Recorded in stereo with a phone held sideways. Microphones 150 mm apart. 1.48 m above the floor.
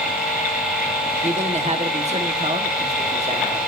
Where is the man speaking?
45° right (ahead or behind), 1.2 m.